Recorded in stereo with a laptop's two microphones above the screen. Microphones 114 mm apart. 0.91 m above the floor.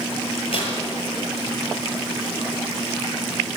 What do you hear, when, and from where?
0.5 s tearing paper: 60° left (ahead or behind), 8.5 m